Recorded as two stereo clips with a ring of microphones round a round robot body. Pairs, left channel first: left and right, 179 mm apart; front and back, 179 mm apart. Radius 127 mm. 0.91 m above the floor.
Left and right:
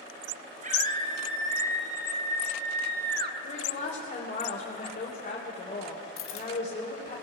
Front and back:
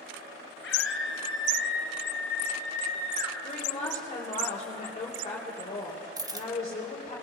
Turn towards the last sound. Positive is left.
turn(degrees=110)